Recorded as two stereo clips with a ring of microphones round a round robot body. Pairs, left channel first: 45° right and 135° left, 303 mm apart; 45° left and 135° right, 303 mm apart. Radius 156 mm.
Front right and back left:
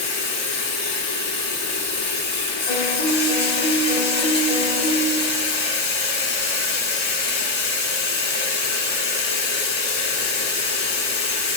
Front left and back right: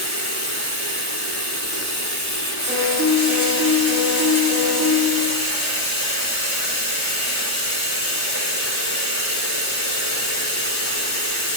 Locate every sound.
0.0 s running water: 10° left, 8 m
2.7 s a piano: 45° right, 6 m